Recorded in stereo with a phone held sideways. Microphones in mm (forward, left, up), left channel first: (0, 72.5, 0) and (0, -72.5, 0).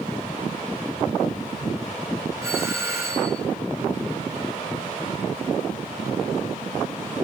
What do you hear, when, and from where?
2.4 s a doorbell: 20° right (ahead or behind), 6 m